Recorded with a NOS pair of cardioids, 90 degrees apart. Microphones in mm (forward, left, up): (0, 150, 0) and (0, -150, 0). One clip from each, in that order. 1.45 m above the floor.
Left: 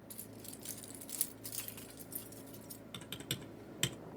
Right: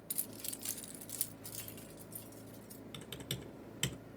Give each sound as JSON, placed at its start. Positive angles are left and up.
{"t": 0.1, "sound": "keys jangling", "azimuth_deg": -70, "distance_m": 1.0}
{"t": 2.9, "sound": "typing on a keyboard", "azimuth_deg": 15, "distance_m": 1.1}